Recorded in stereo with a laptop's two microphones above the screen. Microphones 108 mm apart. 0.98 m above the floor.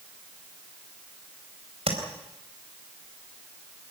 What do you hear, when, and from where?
1.9 s tapping: 70° right (ahead or behind), 4 m